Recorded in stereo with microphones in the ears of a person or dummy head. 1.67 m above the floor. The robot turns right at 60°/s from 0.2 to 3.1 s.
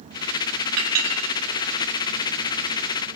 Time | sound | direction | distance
0.8 | a clink | 60° right (ahead or behind) | 2.5 m